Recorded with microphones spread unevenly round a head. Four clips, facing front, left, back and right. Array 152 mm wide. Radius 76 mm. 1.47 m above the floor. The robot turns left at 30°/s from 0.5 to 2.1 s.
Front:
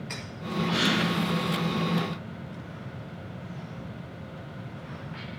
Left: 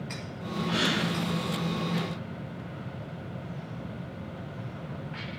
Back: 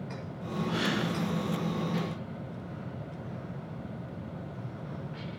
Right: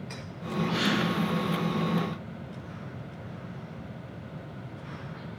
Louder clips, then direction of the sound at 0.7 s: Even, front 4 dB; 45° left.